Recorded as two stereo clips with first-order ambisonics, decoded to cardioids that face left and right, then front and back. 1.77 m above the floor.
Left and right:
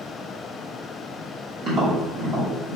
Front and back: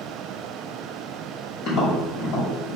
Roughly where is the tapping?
Ahead right.